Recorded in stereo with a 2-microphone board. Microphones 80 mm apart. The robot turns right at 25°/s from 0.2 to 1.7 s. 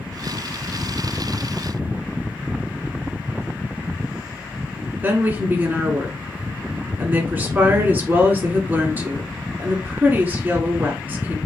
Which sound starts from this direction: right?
A woman speaking, at 5.0 s.